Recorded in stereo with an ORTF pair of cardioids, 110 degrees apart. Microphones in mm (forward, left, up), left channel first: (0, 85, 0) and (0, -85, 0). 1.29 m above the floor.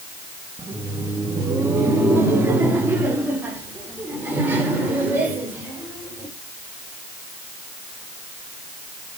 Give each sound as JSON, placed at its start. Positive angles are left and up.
{"t": 0.6, "sound": "laughter", "azimuth_deg": -20, "distance_m": 2.0}